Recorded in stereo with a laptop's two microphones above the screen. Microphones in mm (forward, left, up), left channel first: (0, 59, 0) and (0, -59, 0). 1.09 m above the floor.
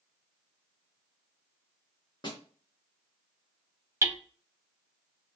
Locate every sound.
2.2 s a snare drum: 40° left (ahead or behind), 1.8 m
4.0 s hammering: 25° right (ahead or behind), 0.5 m